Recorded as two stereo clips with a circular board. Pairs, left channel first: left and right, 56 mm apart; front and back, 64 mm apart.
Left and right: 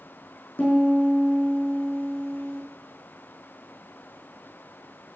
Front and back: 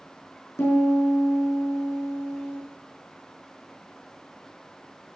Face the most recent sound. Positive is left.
turn(degrees=30)